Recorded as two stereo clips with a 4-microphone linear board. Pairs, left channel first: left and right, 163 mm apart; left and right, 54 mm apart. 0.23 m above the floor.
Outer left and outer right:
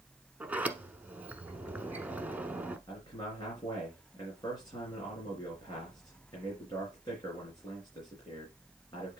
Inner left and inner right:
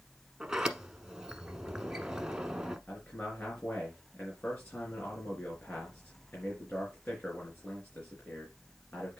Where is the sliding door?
10° right (ahead or behind), 0.9 m.